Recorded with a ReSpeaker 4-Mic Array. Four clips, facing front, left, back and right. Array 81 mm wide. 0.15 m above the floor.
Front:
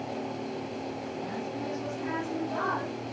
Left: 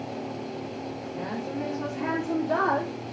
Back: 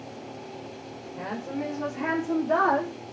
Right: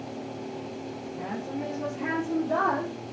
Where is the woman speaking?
160° left, 5 m; by 2.9 s 175° left, 6 m.